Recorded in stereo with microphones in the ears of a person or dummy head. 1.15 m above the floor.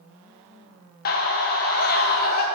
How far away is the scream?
About 1.0 m.